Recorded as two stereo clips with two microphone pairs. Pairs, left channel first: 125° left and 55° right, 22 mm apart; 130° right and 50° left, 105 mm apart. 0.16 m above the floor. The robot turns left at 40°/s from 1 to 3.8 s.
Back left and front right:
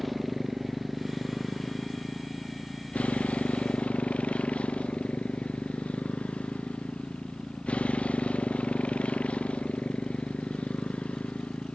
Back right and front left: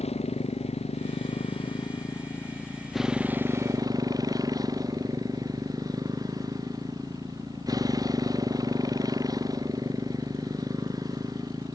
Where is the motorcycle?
145° right; by 11.8 s 105° left.